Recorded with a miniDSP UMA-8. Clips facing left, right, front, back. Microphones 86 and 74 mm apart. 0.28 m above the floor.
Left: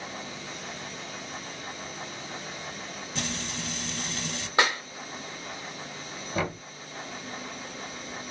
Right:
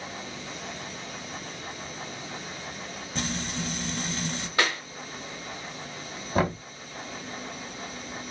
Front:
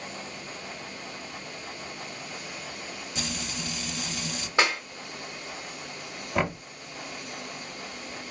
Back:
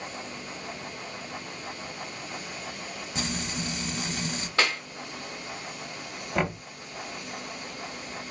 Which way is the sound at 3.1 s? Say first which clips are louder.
Right 3 dB, back 3 dB; 135° right.